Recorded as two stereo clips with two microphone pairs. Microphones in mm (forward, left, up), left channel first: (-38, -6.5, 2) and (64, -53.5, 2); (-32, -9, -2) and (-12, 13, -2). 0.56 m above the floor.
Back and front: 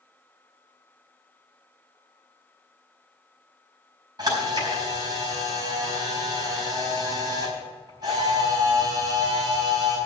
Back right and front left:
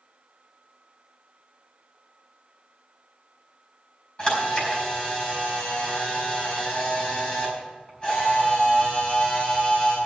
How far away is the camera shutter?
About 4.5 m.